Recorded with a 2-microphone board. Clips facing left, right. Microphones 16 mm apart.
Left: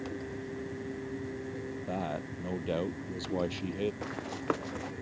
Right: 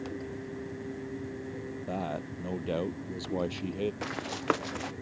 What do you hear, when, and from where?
1.9 s a man speaking: centre (ahead or behind); by 3.9 s 5° left (ahead or behind)
4.0 s running footsteps: 40° right (ahead or behind)